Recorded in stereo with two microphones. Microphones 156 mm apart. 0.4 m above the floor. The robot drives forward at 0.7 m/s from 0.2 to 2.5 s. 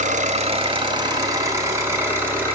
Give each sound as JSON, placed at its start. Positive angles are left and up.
{"t": 0.0, "sound": "an engine running", "side_deg": -50, "distance_m": 0.7}